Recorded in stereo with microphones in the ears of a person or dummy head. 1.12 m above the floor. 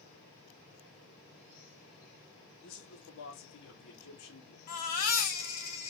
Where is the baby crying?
55° left (ahead or behind), 2.0 m.